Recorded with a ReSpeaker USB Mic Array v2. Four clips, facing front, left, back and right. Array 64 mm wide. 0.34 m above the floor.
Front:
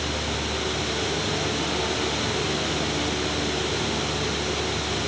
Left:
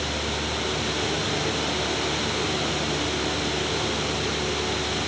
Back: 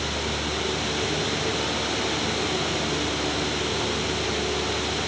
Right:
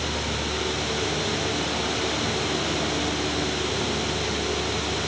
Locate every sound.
Only background noise.